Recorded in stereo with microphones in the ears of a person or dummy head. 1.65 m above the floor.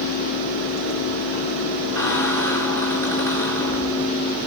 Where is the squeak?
10° left (ahead or behind), 4 m.